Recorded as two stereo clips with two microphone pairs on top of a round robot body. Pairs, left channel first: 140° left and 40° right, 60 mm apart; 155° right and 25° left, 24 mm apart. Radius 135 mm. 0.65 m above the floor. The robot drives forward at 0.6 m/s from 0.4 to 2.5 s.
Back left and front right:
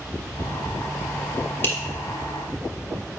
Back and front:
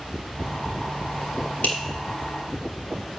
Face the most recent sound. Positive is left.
turn(degrees=-170)